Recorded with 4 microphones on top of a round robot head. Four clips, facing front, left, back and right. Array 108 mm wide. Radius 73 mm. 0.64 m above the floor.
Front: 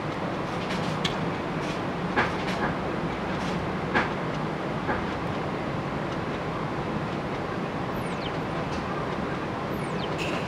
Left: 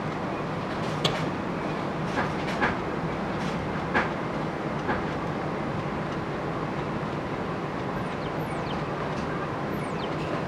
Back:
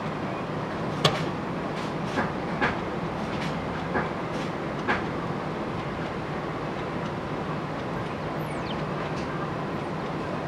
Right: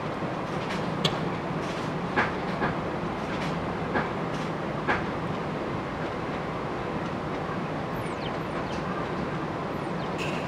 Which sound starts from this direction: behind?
A microwave, at 1.0 s.